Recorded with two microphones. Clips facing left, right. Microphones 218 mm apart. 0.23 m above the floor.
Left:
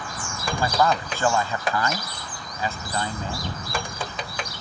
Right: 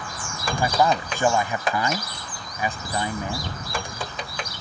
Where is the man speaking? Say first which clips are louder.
Right 1 dB; 15° right (ahead or behind).